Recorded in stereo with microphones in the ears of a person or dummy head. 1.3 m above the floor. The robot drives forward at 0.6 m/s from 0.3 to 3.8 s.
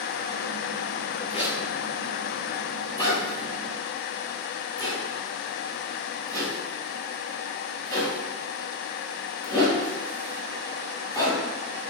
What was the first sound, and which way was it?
A zipper, 40° left (ahead or behind).